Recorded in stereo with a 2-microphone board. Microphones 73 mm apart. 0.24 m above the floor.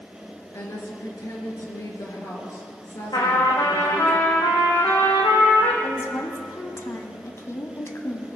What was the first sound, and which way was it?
A woman speaking, 50° left (ahead or behind).